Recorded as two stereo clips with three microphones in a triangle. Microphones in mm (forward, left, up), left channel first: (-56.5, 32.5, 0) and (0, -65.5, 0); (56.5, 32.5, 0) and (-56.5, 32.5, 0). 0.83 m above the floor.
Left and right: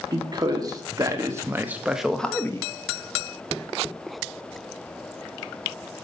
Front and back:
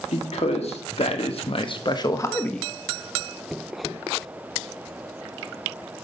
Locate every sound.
0.1 s a man speaking: 10° right, 1.9 m; by 2.7 s 90° left, 0.7 m